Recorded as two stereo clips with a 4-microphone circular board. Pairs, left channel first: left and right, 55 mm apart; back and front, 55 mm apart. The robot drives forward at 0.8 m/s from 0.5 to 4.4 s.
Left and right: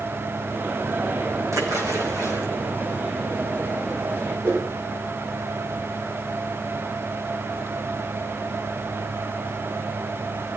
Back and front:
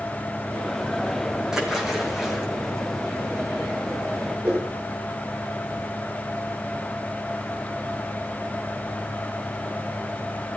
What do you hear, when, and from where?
1.5 s a splash: 80° right, 5.5 m; by 2.5 s 85° right, 5 m
4.4 s a whoosh: 60° right, 6 m